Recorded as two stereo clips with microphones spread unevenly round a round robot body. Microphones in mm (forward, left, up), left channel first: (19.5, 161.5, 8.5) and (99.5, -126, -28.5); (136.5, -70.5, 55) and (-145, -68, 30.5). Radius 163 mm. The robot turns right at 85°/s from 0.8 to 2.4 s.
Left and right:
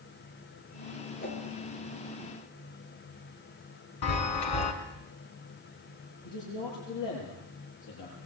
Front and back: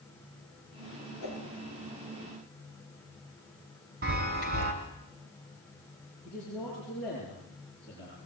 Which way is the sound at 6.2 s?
85° left.